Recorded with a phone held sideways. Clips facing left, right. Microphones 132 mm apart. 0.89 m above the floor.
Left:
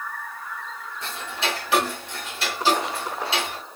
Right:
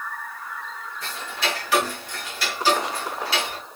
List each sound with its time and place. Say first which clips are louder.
1.0 s ticking: even; 25° left (ahead or behind), 1.6 m